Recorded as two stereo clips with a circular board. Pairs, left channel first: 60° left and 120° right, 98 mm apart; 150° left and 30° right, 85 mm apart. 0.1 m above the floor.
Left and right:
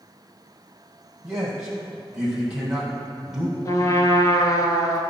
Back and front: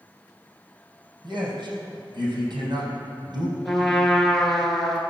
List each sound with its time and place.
1.2 s a man speaking: 40° right, 3.5 m
3.6 s a trumpet: 65° left, 1.5 m